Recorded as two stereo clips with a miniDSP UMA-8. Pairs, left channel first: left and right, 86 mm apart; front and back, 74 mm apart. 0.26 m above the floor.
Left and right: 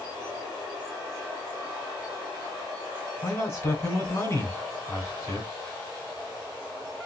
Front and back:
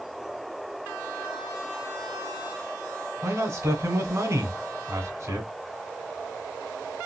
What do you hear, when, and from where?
3.2 s a man speaking: 145° left, 2 m